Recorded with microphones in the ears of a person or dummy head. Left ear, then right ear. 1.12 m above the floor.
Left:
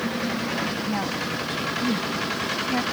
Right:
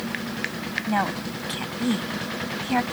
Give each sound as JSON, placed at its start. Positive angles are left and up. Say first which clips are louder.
{"t": 0.9, "sound": "a woman speaking", "louder": "right 1 dB", "side_deg": -40}